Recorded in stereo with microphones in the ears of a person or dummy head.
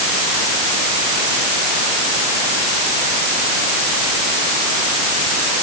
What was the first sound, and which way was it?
Only background noise.